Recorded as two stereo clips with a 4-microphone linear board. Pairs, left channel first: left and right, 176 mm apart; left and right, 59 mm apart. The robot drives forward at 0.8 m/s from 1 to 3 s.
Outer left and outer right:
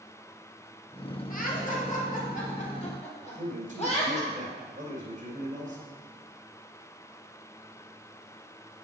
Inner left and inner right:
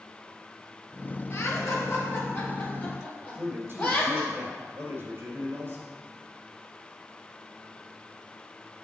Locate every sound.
1.3 s laughter: 50° left (ahead or behind), 1.9 m; by 4.2 s 35° left (ahead or behind), 2.5 m
3.2 s a man speaking: 45° right (ahead or behind), 2.5 m